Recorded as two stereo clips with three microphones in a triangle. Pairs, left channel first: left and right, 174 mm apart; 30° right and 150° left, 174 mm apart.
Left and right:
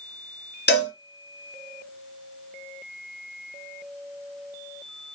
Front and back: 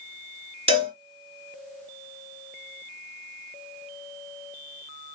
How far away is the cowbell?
About 2.5 m.